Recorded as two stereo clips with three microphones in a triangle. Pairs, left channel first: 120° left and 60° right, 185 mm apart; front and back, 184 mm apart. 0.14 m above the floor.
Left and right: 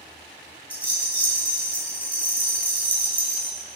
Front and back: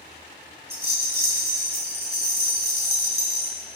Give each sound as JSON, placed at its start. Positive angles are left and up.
{"t": 0.7, "sound": "a rattle", "azimuth_deg": -160, "distance_m": 1.4}